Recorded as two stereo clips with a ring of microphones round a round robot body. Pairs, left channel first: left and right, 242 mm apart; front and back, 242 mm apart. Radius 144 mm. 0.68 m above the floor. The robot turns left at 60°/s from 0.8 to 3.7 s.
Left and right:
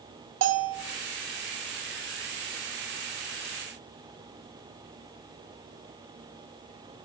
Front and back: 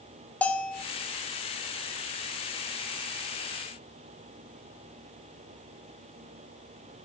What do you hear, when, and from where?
0.4 s a bell: 85° right, 0.5 m